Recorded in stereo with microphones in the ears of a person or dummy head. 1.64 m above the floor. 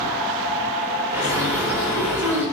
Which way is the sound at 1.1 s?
15° right (ahead or behind).